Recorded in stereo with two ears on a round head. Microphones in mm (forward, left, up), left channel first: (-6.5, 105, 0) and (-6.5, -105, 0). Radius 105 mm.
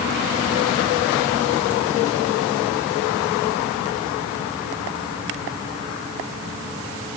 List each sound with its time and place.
Only background noise.